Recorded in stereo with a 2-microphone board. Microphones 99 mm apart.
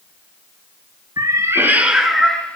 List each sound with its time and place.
1.2 s a cat meowing: 45° right (ahead or behind), 0.9 m; by 2.6 s 15° left (ahead or behind), 1.1 m